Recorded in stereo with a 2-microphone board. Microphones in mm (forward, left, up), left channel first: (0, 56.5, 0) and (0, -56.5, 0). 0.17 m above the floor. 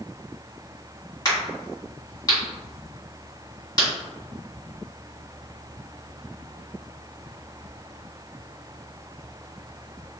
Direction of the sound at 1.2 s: 35° left (ahead or behind).